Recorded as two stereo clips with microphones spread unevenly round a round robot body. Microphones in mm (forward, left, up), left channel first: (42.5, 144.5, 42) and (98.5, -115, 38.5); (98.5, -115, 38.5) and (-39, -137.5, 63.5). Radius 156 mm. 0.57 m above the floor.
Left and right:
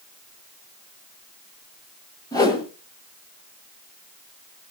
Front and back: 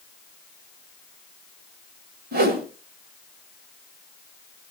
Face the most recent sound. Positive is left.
turn(degrees=180)